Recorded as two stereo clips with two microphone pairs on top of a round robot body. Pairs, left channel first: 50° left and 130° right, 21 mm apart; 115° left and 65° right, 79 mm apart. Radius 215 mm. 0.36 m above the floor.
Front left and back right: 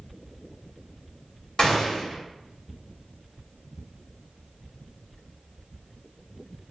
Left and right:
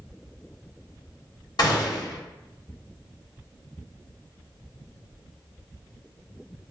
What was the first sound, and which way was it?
A gunshot, 100° left.